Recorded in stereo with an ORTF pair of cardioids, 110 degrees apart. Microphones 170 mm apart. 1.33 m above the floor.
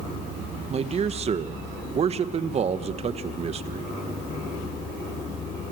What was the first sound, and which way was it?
A man speaking, 40° right.